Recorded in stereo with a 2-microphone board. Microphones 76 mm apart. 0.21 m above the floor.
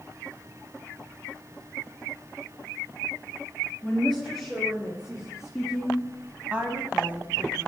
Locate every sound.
3.8 s a woman speaking: centre (ahead or behind), 4.5 m; by 7.7 s 20° right (ahead or behind), 1.9 m